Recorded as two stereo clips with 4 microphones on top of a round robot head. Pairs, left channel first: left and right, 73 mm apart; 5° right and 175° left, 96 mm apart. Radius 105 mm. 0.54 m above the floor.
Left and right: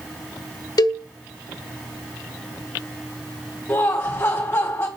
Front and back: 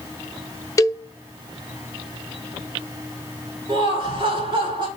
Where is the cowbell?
55° left, 0.6 m.